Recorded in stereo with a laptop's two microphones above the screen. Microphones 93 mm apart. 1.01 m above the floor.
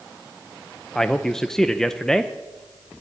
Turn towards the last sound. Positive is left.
turn(degrees=5)  # may be behind; listen again after turning